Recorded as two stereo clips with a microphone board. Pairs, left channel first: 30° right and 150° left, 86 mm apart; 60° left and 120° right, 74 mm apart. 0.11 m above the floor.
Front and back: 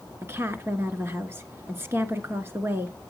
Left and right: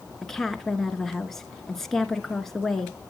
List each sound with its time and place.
0.2 s a woman speaking: 140° left, 1.2 m